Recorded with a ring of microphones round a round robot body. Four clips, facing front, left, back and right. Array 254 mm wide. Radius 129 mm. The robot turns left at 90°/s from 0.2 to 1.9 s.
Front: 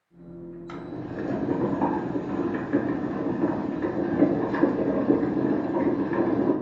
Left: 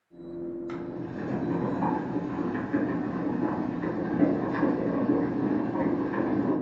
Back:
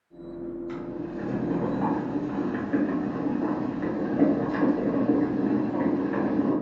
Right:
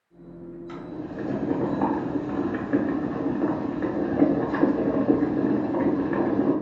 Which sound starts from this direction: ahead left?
Boiling, at 0.7 s.